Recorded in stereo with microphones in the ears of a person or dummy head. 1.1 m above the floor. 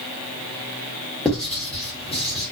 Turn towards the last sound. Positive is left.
turn(degrees=0)  # may be behind; listen again after turning